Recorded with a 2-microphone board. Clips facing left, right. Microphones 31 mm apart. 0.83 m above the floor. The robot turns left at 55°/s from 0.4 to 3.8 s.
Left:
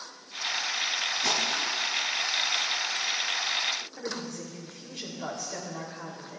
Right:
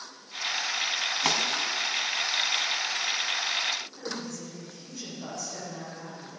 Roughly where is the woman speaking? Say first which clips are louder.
Left 1 dB; left.